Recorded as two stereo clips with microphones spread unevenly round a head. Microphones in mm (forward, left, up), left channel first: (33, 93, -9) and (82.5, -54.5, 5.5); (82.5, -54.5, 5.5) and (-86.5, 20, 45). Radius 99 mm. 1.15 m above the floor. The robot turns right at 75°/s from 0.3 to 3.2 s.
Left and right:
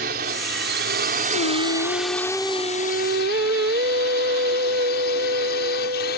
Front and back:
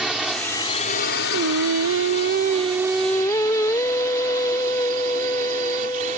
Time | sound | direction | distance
0.0 | a drone | 115° right | ?
1.3 | singing | 120° left | ?